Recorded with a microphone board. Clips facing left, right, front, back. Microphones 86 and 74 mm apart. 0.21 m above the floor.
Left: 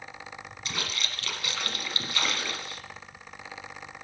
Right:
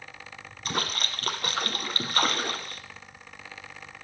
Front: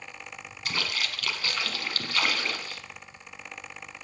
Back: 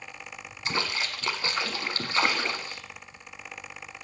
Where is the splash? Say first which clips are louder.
Right 5 dB, back 2 dB; 120° right, 1.1 m.